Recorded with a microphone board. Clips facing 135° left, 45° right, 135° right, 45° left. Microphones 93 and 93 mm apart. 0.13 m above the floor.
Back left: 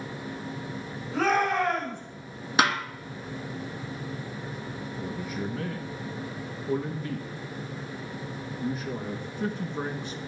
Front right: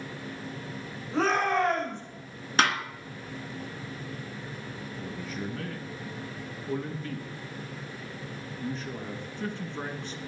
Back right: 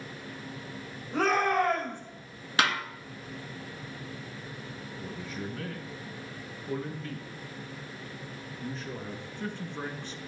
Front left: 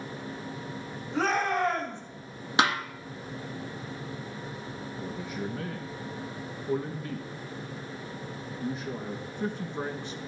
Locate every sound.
1.1 s a shout: 100° right, 7.5 m
2.6 s a snare drum: 70° left, 1.5 m
5.0 s a man speaking: 85° left, 1.1 m